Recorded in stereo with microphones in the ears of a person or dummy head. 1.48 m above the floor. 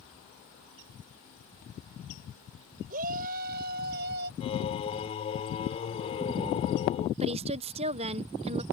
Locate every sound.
2.9 s a shout: 45° right (ahead or behind); by 4.3 s 55° right (ahead or behind)
4.4 s singing: 30° left (ahead or behind)
7.2 s a woman speaking: 30° right (ahead or behind)